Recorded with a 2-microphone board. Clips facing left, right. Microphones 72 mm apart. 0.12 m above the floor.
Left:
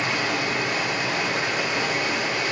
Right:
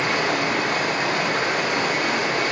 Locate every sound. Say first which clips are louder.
0.0 s running water: right 3 dB; 50° right (ahead or behind), 2 m